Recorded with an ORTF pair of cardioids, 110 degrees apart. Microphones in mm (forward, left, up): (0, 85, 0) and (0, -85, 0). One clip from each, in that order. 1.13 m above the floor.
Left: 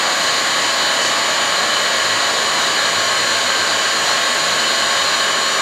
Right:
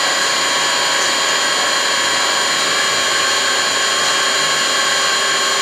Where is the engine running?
35° right, 1.2 m.